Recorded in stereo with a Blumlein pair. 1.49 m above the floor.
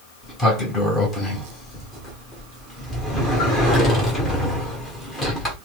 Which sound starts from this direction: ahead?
A sliding door, at 0.2 s.